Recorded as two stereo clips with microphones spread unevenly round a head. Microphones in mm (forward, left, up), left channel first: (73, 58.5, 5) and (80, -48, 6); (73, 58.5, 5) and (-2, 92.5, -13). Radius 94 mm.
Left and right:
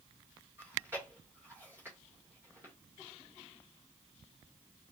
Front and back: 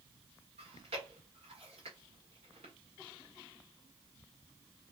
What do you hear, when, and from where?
0.6 s chewing: 165° right, 1.9 m